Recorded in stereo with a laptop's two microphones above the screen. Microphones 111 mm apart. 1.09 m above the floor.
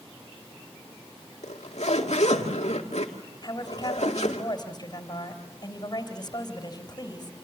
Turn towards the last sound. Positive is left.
turn(degrees=35)  # may be behind; listen again after turning